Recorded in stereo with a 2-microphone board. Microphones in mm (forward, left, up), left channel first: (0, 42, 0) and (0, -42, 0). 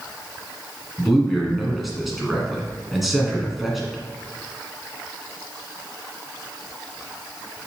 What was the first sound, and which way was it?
A man speaking, centre (ahead or behind).